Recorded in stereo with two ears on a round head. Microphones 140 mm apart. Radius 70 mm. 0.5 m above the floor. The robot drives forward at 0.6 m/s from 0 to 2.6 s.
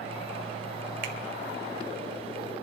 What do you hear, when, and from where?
1.0 s a finger snap: 55° right (ahead or behind), 1.5 m